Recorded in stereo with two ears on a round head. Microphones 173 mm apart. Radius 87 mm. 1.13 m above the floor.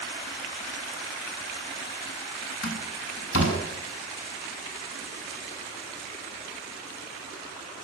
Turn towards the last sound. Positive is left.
turn(degrees=75)  # may be behind; listen again after turning